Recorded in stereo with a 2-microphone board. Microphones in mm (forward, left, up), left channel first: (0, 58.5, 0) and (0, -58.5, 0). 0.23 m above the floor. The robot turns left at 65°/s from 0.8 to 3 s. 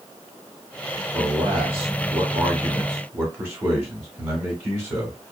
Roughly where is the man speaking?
Centre.